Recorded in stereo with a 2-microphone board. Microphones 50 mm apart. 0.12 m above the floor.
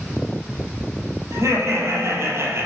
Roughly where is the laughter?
Right.